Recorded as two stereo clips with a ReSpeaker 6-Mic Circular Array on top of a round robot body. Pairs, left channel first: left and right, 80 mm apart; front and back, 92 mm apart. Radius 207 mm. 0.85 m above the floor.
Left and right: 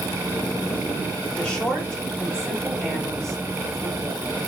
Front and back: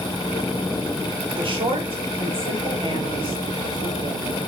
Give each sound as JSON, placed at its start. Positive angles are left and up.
{"t": 1.4, "sound": "a woman speaking", "azimuth_deg": 165, "distance_m": 6.0}